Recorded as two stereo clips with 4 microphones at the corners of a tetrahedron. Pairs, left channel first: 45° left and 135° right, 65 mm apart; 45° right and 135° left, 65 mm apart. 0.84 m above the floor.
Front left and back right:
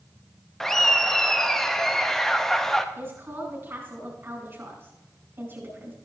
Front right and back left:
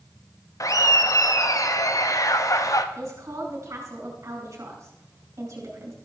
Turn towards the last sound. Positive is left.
turn(degrees=175)